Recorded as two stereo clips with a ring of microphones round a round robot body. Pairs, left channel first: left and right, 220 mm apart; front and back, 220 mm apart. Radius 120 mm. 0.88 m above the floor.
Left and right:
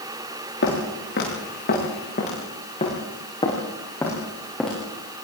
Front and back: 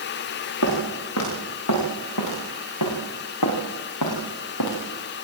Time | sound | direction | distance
0.6 | footsteps | 40° left | 8.5 m